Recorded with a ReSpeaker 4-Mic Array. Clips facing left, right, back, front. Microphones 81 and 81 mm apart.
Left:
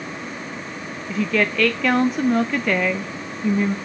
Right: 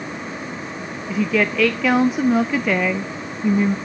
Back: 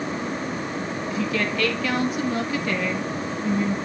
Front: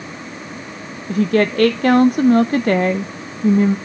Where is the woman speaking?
5° right, 0.5 m.